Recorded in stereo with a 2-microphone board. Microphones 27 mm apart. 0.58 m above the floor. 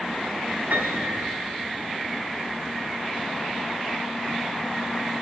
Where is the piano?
80° right, 5 m.